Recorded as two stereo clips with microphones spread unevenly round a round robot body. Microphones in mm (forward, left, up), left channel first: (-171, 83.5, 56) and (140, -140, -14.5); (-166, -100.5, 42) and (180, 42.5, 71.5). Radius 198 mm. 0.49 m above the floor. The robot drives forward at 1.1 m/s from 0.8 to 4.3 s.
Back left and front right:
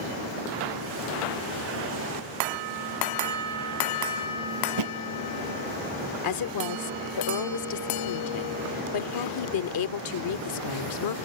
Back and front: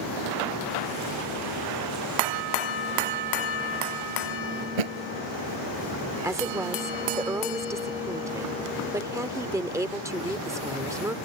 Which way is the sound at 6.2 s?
105° left.